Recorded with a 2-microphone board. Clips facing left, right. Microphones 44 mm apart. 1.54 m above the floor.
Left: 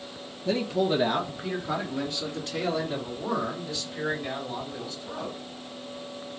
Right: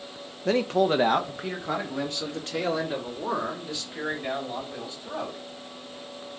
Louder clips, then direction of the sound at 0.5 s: Right 3 dB; 65° right (ahead or behind).